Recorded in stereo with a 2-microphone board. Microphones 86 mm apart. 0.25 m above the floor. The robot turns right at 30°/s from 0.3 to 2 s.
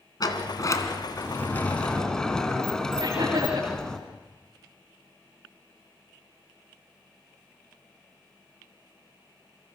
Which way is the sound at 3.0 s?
80° right.